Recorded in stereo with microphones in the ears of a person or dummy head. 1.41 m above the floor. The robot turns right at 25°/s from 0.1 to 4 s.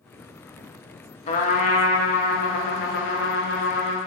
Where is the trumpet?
50° left, 0.5 m; by 4.0 s 120° left, 0.5 m.